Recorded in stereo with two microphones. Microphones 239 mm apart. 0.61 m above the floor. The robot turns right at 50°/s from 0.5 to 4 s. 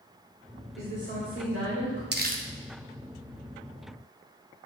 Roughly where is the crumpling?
Right.